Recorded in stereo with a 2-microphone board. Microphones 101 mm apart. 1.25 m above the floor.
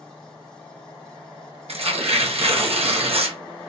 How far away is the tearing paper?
About 0.7 m.